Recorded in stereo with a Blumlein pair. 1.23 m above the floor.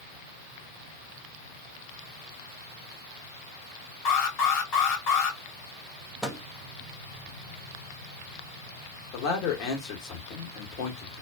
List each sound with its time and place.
4.0 s an alarm: 35° left, 1.6 m
6.2 s a microwave: 5° right, 0.7 m
9.1 s a man speaking: 40° left, 1.3 m